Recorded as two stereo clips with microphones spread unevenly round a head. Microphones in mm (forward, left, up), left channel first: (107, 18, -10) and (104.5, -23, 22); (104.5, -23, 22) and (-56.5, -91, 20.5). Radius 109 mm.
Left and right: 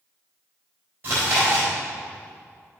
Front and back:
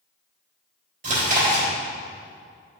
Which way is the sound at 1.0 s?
115° right.